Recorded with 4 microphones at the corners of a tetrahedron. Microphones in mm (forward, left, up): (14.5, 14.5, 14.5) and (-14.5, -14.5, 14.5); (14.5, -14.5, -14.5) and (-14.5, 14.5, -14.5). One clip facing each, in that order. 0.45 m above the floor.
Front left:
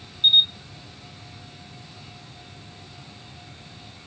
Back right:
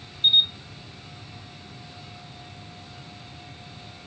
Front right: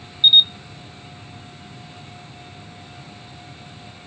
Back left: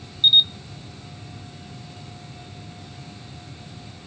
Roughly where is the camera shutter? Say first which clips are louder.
Front left 2 dB, front right 3 dB; ahead left.